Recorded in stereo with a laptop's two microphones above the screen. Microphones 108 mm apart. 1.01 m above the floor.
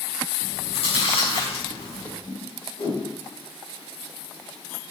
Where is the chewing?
75° left (ahead or behind), 5 m.